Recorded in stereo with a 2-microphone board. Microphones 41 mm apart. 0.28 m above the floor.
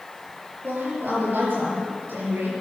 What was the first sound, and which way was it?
A woman speaking, 55° right (ahead or behind).